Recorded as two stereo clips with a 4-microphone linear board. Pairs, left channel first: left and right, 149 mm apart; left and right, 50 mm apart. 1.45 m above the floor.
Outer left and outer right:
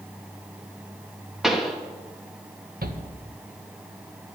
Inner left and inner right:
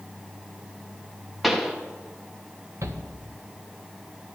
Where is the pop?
5° right (ahead or behind), 1.6 m.